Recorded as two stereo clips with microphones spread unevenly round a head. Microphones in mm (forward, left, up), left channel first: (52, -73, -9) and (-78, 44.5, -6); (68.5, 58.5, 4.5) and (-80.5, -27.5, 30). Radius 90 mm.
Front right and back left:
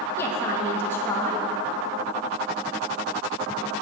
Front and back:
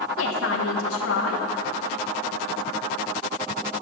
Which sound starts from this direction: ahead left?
A woman speaking, at 0.2 s.